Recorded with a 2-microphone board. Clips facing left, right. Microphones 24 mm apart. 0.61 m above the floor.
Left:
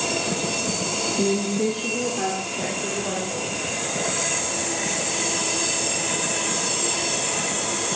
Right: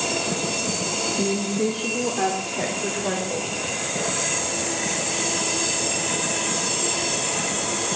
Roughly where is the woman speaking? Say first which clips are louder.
Left 2 dB; left.